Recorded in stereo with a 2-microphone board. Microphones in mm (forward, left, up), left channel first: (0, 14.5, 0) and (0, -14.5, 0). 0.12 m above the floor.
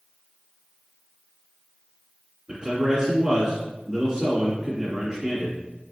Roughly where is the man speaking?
Right.